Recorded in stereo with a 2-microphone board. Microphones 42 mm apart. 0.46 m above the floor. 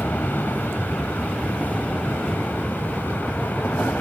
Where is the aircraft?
60° left (ahead or behind).